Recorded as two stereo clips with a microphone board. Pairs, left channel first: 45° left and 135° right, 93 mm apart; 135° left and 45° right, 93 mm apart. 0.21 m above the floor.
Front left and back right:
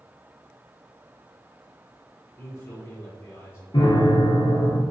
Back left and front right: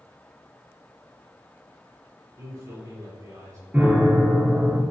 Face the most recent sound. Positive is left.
turn(degrees=25)